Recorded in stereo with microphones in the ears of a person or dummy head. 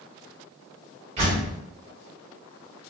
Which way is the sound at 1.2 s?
40° right (ahead or behind).